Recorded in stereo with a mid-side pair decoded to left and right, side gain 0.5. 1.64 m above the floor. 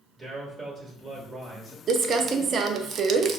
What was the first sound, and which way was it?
A man speaking, 30° right.